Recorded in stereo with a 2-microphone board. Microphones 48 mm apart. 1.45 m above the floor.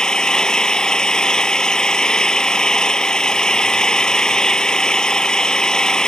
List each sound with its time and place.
0.0 s an engine running: 15° left (ahead or behind)